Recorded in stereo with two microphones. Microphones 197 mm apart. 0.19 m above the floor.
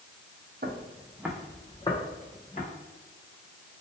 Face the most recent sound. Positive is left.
turn(degrees=40)  # may be behind; listen again after turning